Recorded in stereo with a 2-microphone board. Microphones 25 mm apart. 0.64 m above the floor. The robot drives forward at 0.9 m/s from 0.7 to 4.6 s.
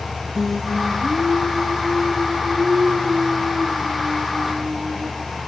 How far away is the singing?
About 1.5 m.